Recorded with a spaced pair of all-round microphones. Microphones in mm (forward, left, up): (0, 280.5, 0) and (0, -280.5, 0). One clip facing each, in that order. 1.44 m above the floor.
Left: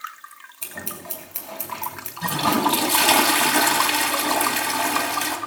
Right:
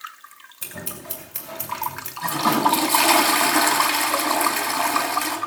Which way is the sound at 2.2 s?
55° left (ahead or behind).